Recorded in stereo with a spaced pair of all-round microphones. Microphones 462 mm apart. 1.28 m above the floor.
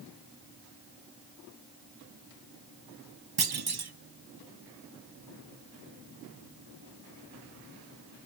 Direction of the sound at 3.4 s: 55° right (ahead or behind).